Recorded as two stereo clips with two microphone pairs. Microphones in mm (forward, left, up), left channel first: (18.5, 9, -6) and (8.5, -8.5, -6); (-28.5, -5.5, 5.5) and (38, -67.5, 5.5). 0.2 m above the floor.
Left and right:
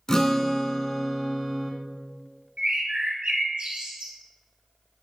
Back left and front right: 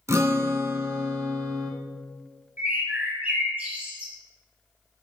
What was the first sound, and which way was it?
A guitar, 5° left.